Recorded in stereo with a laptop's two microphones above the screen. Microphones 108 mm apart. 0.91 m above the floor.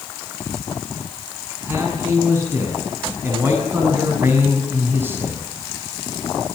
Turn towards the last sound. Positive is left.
turn(degrees=-20)  # may be behind; listen again after turning